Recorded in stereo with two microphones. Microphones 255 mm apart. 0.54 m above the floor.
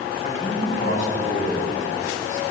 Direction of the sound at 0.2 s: 35° left (ahead or behind).